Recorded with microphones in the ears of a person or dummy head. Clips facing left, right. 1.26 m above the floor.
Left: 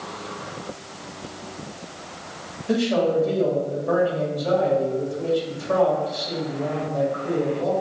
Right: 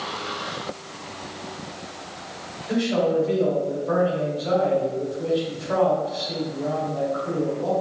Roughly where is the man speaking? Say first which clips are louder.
Left 1 dB; left.